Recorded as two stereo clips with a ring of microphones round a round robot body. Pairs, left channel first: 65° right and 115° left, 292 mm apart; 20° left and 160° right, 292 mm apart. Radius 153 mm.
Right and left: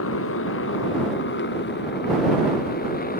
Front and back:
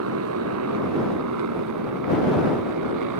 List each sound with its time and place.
0.0 s a motorcycle: 115° right; by 3.2 s 130° right